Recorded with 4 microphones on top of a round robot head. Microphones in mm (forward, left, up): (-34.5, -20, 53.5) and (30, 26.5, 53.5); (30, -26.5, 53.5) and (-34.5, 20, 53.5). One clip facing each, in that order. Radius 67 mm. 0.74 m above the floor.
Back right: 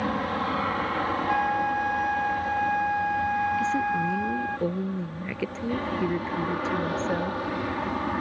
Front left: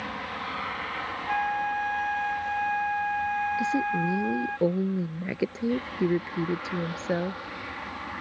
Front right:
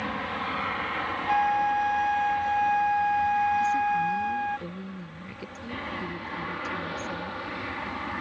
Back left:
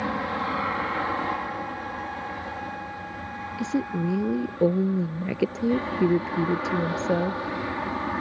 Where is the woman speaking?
110° left.